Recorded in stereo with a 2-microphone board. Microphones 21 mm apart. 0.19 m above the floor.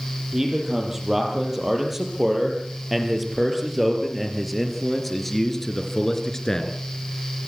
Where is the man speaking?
15° right (ahead or behind), 7.5 m; by 6.8 s 30° left (ahead or behind), 3.5 m.